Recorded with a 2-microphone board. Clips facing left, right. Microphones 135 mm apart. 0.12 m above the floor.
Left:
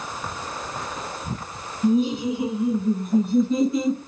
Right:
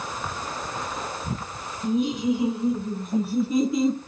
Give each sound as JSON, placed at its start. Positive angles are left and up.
{"t": 1.8, "sound": "laughter", "side_deg": 35, "distance_m": 1.8}